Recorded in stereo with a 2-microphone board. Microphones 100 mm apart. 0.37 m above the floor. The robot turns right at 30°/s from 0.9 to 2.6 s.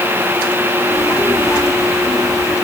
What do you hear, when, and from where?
Only background noise.